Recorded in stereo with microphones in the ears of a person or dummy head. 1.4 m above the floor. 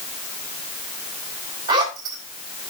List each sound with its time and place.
1.7 s a zipper: 25° right (ahead or behind), 3 m